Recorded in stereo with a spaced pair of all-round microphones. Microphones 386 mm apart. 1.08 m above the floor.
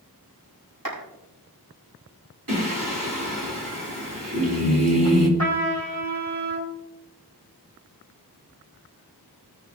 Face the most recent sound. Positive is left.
turn(degrees=-40)  # may be behind; listen again after turning